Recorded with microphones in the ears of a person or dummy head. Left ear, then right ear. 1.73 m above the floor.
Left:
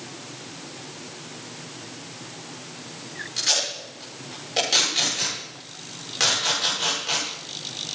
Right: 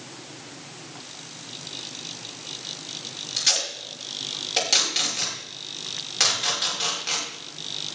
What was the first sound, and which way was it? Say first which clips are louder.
Tape being pulled: even; 25° right (ahead or behind).